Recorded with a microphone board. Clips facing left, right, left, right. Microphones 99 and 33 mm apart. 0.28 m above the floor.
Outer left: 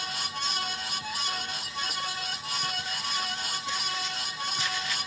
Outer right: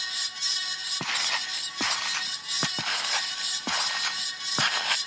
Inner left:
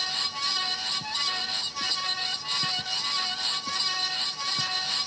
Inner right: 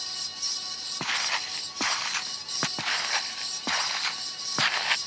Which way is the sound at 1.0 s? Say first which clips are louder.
Outer right 5 dB, inner right 1 dB; 85° right.